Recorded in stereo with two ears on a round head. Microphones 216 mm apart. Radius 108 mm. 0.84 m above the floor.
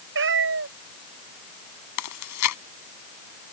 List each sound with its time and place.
0.1 s a cat meowing: 55° right (ahead or behind)
2.0 s chewing: 80° left